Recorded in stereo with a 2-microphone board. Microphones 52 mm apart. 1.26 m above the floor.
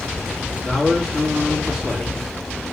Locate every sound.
0.6 s a man speaking: 10° right (ahead or behind), 3 m